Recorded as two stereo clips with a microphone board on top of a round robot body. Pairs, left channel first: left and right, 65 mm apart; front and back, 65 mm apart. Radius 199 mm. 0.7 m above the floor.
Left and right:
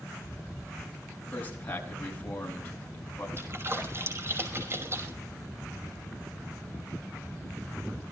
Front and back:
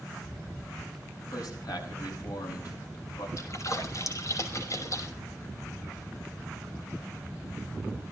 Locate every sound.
1.3 s a man speaking: 25° left, 7 m
3.4 s a splash: 40° right, 5.5 m